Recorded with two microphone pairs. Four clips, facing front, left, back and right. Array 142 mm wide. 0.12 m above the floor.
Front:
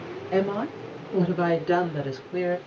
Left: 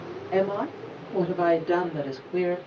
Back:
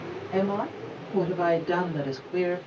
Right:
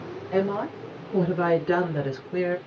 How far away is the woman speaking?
About 1.9 m.